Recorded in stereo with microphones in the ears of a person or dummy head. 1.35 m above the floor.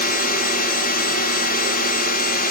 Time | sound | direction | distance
0.0 | a drone | 45° left (ahead or behind) | ?